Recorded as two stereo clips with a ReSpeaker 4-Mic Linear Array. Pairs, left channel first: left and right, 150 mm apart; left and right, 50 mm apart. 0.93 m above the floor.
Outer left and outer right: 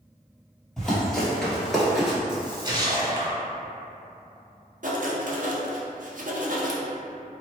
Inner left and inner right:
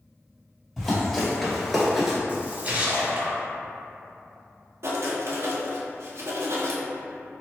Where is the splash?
30° right (ahead or behind), 0.9 m.